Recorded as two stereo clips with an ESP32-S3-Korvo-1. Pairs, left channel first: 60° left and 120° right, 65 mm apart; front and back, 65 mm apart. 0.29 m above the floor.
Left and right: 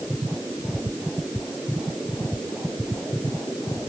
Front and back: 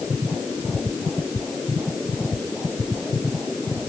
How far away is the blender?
No blender in this recording.